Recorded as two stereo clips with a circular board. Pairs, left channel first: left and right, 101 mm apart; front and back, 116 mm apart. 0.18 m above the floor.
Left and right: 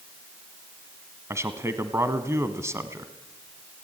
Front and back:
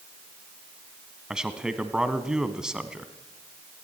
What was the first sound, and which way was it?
A man speaking, 105° right.